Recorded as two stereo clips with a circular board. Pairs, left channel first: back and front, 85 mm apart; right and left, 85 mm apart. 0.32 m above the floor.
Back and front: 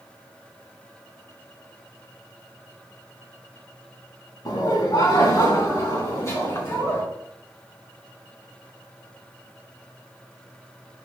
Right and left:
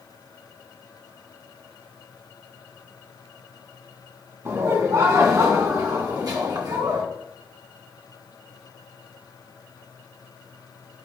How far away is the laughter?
About 2.5 m.